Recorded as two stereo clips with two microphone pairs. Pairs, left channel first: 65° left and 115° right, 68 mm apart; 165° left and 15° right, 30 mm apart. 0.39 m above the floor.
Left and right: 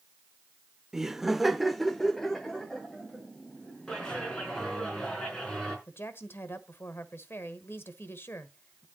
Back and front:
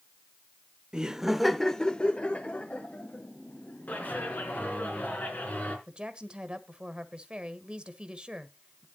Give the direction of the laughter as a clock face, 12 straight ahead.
1 o'clock.